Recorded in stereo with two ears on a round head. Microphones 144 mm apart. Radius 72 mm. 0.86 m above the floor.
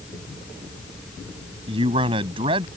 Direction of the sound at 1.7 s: 30° right (ahead or behind).